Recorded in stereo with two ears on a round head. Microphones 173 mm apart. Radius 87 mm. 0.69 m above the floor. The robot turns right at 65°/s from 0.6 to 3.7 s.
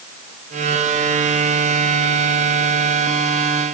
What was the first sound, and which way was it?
Only background noise.